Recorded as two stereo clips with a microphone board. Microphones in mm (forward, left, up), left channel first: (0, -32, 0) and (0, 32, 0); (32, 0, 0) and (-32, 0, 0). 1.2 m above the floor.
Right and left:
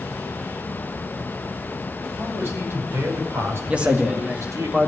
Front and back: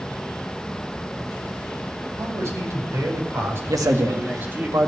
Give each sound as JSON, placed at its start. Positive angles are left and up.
{"t": 2.2, "sound": "a man speaking", "azimuth_deg": 140, "distance_m": 6.5}
{"t": 3.7, "sound": "a man speaking", "azimuth_deg": 160, "distance_m": 1.7}